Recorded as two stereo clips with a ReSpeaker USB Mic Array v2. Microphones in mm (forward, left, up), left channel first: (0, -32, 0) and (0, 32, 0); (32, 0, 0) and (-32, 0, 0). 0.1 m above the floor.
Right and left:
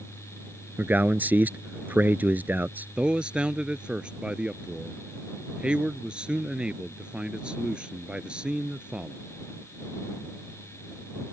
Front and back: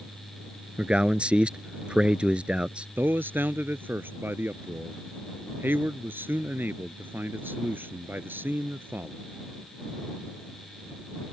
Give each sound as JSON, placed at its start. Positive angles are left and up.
{"t": 0.8, "sound": "a man speaking", "azimuth_deg": 125}
{"t": 3.0, "sound": "a man speaking", "azimuth_deg": 155}